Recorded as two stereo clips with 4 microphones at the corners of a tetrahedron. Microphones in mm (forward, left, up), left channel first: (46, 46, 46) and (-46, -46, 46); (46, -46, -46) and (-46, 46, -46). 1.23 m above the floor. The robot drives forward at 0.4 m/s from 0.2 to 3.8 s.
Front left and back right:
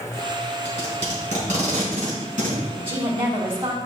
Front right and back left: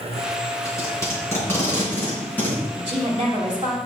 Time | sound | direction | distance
0.7 | tape being pulled | 110° right | 3.5 m
2.8 | a woman speaking | 175° left | 2 m